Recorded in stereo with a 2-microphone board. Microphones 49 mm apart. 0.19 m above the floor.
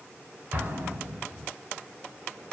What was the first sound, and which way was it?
An explosion, 40° right (ahead or behind).